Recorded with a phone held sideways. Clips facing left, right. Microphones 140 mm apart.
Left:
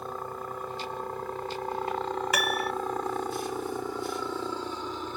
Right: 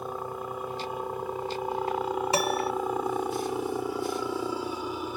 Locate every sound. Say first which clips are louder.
0.0 s a helicopter: right 2 dB; 10° right (ahead or behind)
2.3 s a piano: right 4 dB; 30° right (ahead or behind)